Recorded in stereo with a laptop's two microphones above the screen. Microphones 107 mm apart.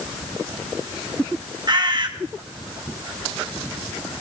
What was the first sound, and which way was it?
A bird, 45° right (ahead or behind).